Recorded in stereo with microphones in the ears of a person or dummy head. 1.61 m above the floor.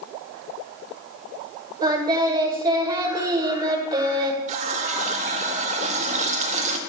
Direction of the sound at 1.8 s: 25° right (ahead or behind).